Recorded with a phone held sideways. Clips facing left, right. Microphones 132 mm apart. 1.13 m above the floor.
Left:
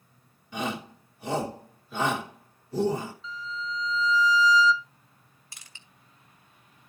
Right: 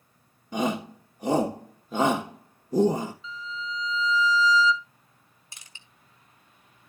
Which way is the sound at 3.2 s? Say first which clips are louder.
Even; centre (ahead or behind).